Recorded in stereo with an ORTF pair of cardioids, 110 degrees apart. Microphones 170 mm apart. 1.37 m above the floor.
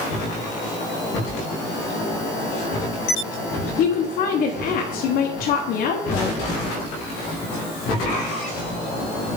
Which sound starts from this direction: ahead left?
A woman speaking, at 3.8 s.